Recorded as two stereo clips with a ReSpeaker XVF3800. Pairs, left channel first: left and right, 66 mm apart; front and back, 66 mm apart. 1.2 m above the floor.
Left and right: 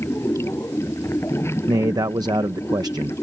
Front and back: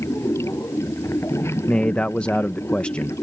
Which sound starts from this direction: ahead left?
Running water, at 0.0 s.